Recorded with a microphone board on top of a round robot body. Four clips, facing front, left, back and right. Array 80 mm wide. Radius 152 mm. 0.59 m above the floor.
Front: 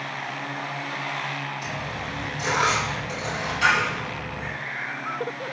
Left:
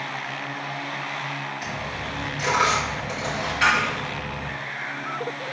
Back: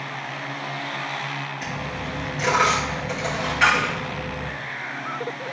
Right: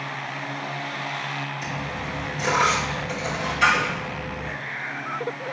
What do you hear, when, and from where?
1.6 s a dropped coin: 155° left, 3.5 m